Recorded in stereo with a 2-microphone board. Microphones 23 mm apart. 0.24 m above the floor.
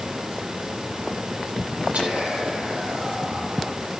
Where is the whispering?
80° right, 8.5 m.